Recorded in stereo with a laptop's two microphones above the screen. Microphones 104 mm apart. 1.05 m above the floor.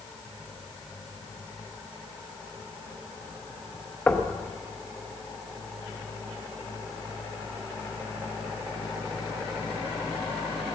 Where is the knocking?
15° left (ahead or behind), 0.9 m.